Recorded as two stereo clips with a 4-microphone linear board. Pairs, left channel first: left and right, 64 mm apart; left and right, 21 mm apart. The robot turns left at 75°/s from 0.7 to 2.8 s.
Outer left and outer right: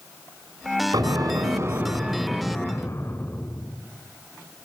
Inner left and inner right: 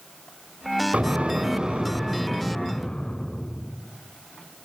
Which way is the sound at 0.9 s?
80° right.